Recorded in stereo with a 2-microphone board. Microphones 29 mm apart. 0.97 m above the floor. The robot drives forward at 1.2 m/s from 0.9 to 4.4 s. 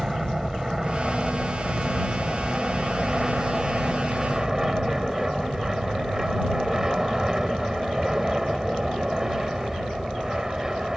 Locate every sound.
0.0 s an aircraft: 15° right (ahead or behind)